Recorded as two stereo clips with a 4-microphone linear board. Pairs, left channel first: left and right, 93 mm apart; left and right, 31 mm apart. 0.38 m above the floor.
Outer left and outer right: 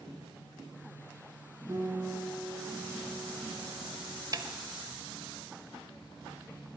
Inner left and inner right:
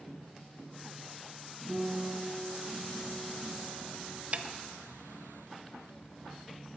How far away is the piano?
About 4 m.